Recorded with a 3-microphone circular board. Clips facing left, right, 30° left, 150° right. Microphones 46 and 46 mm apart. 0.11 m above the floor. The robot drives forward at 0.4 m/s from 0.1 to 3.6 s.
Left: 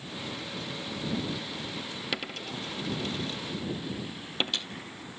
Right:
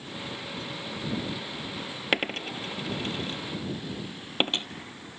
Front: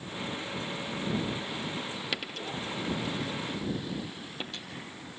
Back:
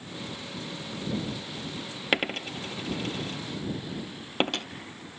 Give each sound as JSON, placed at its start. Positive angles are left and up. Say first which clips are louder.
{"t": 2.1, "sound": "a dropped coin", "louder": "right 9 dB, back 12 dB", "azimuth_deg": -120, "distance_m": 0.8}